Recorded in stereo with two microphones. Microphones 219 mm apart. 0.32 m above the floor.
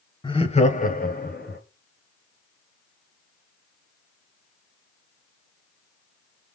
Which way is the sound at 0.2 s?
20° left (ahead or behind).